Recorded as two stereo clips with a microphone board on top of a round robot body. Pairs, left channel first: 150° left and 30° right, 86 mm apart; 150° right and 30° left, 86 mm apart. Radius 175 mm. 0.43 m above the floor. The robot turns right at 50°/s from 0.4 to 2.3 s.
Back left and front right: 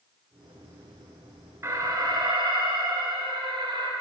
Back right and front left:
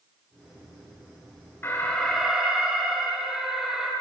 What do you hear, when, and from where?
1.6 s an alarm: 85° right, 4.5 m; by 3.9 s 55° right, 4.5 m